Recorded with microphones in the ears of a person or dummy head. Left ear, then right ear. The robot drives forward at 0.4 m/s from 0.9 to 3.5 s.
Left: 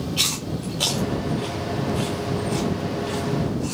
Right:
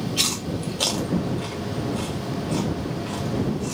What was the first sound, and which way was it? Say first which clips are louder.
Chewing: left 1 dB; centre (ahead or behind).